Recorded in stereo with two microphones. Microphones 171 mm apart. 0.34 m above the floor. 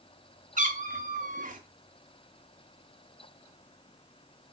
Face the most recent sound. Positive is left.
turn(degrees=-55)  # may be behind; listen again after turning